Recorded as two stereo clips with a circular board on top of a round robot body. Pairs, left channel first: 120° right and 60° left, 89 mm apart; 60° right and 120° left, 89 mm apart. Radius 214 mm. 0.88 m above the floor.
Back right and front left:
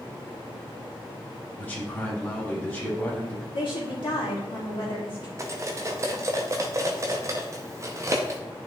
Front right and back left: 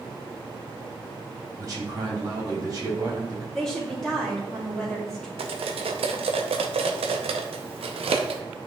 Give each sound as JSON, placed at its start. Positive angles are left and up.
{"t": 1.6, "sound": "a man speaking", "azimuth_deg": 170, "distance_m": 3.0}
{"t": 3.5, "sound": "a woman speaking", "azimuth_deg": -145, "distance_m": 3.0}
{"t": 5.4, "sound": "cutlery clinking", "azimuth_deg": 120, "distance_m": 0.7}